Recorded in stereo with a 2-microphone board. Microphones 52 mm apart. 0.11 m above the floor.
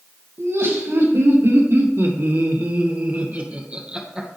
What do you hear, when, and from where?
0.4 s laughter: 70° right (ahead or behind), 3.5 m; by 4.4 s 15° right (ahead or behind), 2.5 m